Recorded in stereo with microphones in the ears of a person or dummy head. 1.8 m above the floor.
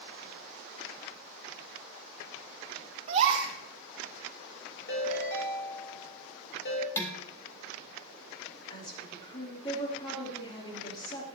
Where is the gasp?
35° right (ahead or behind), 3 m.